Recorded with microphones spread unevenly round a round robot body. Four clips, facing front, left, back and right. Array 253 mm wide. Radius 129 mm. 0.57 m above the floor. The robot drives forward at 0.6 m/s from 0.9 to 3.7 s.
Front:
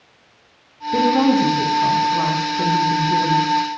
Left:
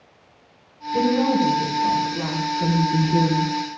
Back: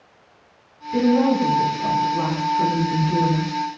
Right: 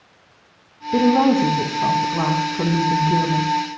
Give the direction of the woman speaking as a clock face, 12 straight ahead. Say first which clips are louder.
Right 4 dB, front 2 dB; 2 o'clock.